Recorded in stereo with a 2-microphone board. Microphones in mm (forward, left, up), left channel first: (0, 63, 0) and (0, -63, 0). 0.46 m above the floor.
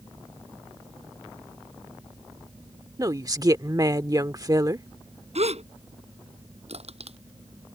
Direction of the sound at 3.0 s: 30° right (ahead or behind).